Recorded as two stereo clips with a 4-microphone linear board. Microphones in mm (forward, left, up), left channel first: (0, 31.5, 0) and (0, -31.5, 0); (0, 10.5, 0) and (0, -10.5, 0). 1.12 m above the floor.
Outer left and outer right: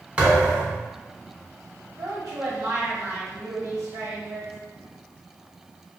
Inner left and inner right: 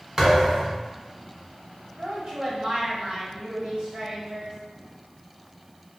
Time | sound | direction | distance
0.2 | a thud | 20° right (ahead or behind) | 1.4 m
2.0 | a woman speaking | 65° right (ahead or behind) | 1.4 m